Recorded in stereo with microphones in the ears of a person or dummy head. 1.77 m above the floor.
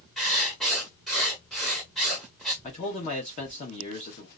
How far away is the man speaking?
About 0.8 m.